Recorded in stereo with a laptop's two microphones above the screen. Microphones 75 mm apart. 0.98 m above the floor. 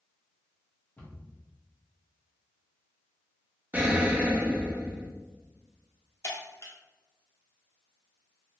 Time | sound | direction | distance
1.0 | a cupboard door | 25° left (ahead or behind) | 1.0 m
3.7 | an explosion | 20° right (ahead or behind) | 0.5 m
6.2 | breaking glass | 45° left (ahead or behind) | 1.1 m